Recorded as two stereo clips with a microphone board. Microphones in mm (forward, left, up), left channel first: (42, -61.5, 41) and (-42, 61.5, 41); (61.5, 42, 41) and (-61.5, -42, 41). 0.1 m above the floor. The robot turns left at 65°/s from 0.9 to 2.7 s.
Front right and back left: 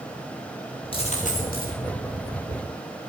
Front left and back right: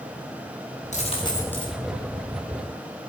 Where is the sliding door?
I don't hear a sliding door.